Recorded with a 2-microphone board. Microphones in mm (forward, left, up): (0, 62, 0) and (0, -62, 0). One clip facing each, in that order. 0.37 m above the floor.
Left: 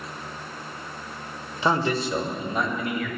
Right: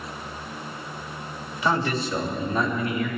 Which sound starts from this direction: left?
A man speaking, at 1.6 s.